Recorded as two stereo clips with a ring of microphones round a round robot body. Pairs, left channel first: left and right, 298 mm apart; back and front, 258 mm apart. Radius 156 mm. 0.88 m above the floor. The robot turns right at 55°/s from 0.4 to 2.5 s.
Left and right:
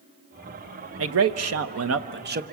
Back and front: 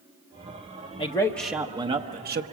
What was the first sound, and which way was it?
A man speaking, 115° right.